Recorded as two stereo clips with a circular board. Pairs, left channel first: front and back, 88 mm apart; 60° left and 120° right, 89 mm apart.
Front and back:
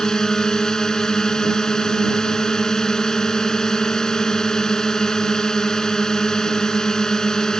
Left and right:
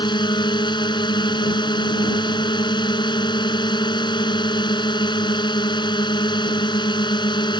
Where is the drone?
85° left.